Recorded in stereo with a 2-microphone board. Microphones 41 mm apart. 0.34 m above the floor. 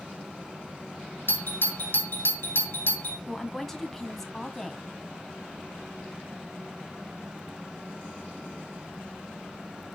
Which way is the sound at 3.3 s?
5° left (ahead or behind).